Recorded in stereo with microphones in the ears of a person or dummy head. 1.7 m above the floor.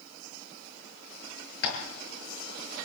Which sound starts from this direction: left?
Tapping, at 1.6 s.